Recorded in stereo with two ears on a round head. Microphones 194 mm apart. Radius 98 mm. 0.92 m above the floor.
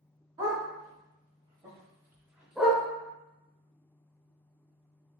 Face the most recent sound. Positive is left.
turn(degrees=5)  # may be behind; listen again after turning